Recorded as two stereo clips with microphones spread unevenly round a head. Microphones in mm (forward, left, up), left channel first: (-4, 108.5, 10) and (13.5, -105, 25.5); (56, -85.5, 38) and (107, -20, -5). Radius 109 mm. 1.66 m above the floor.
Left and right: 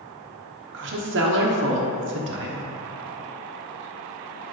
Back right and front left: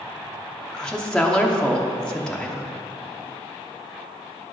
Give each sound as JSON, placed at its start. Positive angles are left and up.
{"t": 0.7, "sound": "a woman speaking", "azimuth_deg": -50, "distance_m": 1.1}